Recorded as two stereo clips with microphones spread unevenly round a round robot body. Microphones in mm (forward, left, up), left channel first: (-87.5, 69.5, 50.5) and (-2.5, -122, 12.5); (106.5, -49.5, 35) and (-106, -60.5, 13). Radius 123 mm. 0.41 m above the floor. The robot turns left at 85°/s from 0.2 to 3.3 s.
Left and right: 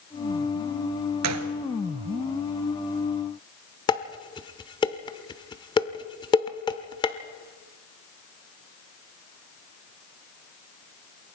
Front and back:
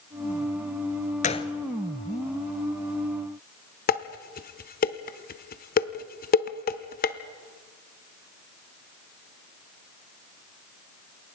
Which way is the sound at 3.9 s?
40° left.